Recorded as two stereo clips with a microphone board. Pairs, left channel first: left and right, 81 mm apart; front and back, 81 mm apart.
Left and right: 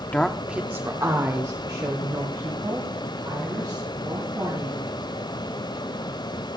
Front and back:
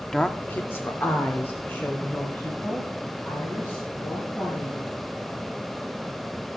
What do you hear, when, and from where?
0.1 s a woman speaking: 70° left, 0.7 m; by 4.9 s 60° right, 5 m